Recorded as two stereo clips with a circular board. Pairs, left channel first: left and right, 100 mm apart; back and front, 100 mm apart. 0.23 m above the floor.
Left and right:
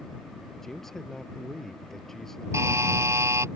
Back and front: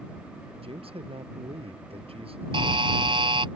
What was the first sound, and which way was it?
A man speaking, 5° left.